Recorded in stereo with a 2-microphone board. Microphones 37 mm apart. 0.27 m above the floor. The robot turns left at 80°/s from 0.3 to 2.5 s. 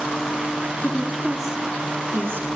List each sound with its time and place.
0.8 s a woman speaking: 40° left, 6 m; by 2.5 s 95° right, 6 m